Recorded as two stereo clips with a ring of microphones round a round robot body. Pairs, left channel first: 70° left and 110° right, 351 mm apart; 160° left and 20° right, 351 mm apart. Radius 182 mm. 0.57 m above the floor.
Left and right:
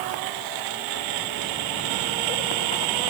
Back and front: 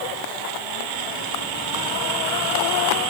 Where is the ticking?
No ticking in this recording.